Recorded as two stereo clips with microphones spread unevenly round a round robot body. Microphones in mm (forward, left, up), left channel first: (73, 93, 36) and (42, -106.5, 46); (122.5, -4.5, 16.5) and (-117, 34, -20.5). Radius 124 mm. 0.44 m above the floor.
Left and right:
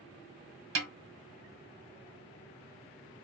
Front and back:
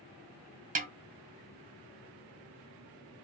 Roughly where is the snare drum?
Behind right.